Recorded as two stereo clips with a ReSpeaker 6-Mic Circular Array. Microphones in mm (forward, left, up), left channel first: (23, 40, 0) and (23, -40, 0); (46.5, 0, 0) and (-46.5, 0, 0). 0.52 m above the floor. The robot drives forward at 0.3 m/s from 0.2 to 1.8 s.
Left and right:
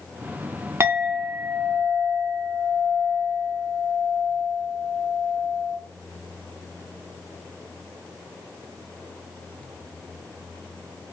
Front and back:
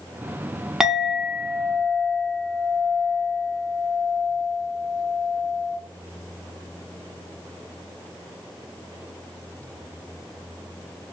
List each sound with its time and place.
0.8 s a clink: 100° right, 0.7 m; by 5.8 s 130° right, 0.8 m